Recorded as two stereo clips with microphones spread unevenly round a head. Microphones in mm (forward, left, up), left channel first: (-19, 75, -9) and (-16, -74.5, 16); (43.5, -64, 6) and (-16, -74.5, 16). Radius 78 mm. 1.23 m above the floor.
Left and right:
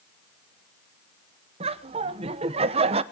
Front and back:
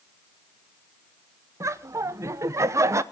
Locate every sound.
1.6 s laughter: 140° right, 1.0 m